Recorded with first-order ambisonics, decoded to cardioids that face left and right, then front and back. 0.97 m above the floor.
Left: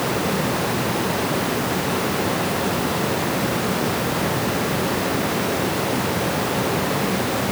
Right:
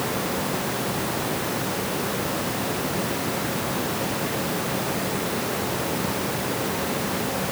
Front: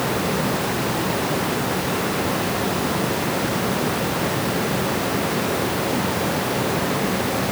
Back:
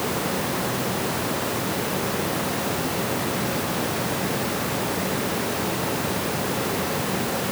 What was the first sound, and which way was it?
Only background noise.